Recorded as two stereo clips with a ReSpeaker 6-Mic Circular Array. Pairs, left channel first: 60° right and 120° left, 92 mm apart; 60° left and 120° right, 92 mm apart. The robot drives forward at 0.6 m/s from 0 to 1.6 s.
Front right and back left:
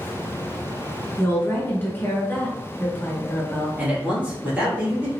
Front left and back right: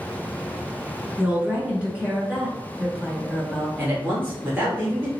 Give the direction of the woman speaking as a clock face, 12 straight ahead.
1 o'clock.